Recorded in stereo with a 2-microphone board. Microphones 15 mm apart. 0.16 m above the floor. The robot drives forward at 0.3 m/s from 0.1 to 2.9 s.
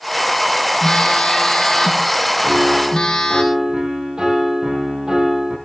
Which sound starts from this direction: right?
A piano, at 2.4 s.